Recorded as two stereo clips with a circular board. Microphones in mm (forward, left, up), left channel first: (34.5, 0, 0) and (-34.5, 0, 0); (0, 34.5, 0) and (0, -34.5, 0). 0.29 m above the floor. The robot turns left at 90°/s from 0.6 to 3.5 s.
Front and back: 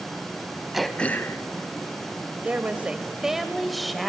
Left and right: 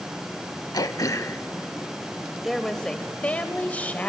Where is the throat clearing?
95° left, 0.7 m; by 1.4 s 35° left, 0.7 m.